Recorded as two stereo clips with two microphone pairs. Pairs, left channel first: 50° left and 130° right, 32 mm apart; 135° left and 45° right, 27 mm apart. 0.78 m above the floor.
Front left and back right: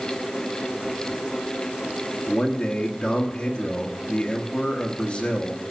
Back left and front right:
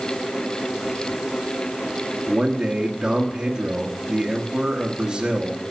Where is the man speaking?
5° left, 1.3 m.